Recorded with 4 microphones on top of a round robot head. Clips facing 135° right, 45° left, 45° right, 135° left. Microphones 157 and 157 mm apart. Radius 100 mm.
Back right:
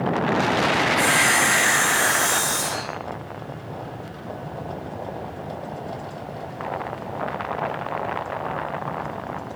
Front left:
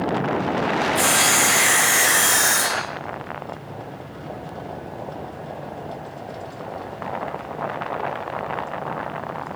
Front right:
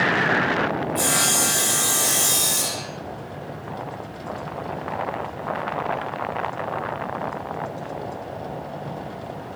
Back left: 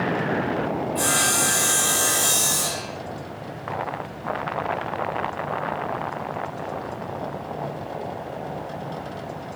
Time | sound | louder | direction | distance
0.9 | sawing | even, even | 25° left | 6.5 m